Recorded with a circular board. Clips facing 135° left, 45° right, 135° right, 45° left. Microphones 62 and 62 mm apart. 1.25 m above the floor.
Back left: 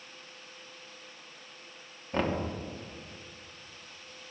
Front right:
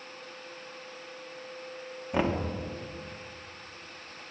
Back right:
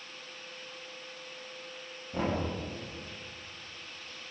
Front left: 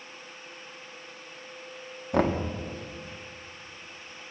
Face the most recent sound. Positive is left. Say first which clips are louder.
# front right 2 dB, front left 7 dB
turn(degrees=35)